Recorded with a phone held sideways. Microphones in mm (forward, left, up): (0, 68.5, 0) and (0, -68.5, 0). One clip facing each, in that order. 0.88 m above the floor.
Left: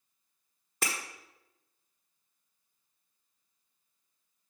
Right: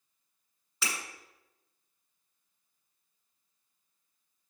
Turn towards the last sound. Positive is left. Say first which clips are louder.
# left 2 dB
turn(degrees=50)  # may be behind; listen again after turning